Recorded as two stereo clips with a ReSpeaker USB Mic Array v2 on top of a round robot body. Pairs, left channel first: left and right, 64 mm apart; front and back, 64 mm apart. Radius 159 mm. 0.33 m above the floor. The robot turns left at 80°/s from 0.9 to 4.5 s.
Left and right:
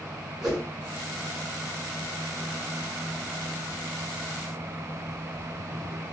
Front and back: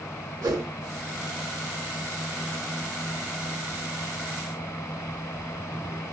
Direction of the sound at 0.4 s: 170° right.